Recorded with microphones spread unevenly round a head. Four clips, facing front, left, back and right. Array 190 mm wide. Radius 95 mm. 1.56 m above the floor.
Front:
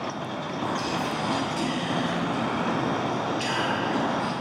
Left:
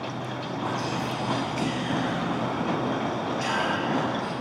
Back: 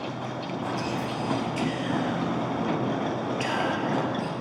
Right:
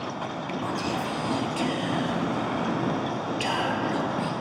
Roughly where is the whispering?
Behind right.